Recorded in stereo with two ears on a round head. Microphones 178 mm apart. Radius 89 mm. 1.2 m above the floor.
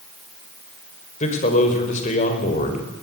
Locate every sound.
1.2 s a man speaking: 35° left (ahead or behind), 5 m